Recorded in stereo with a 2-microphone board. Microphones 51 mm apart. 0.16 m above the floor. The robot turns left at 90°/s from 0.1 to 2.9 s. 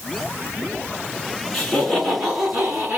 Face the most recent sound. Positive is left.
turn(degrees=-120)